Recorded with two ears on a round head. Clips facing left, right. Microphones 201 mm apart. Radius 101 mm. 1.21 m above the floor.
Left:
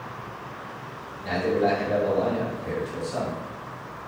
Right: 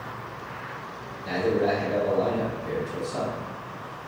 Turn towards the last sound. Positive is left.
turn(degrees=75)  # may be behind; listen again after turning